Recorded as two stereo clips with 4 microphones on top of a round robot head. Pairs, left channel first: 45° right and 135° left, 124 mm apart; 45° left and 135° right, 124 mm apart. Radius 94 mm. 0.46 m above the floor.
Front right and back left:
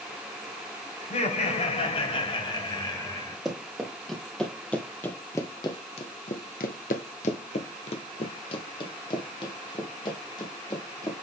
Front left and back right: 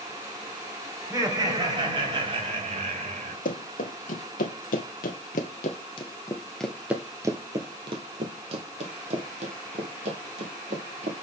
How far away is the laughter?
About 2.5 m.